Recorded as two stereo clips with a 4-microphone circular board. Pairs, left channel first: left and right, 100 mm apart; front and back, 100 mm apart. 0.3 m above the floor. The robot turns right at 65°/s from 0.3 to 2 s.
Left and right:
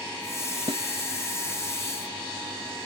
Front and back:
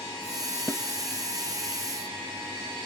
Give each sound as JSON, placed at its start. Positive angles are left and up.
{"t": 0.7, "sound": "a snare drum", "azimuth_deg": -65}